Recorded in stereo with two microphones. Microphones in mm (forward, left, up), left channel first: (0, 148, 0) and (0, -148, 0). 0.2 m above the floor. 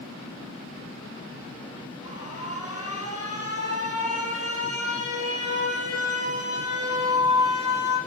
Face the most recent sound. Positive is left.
turn(degrees=-55)  # may be behind; listen again after turning